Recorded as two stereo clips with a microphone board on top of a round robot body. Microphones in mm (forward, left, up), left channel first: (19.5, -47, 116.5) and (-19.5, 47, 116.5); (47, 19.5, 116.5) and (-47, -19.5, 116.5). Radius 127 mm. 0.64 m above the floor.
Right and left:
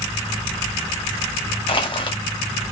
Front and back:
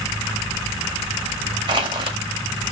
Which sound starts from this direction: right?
Crushing, at 1.7 s.